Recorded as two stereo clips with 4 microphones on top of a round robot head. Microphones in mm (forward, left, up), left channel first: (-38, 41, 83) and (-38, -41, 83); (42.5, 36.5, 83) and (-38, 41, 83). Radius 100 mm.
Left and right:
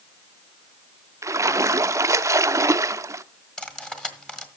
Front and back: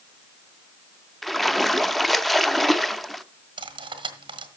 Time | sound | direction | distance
1.2 | a splash | 90° right | 0.6 m
3.6 | cutlery clinking | 170° left | 1.7 m